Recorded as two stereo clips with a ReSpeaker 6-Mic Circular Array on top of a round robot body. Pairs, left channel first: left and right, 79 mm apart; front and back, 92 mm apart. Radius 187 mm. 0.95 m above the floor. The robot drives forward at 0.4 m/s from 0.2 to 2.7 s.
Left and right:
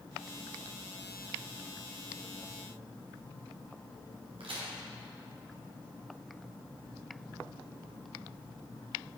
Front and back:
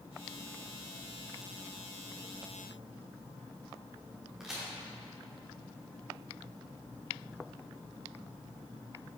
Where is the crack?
95° right, 1.3 m.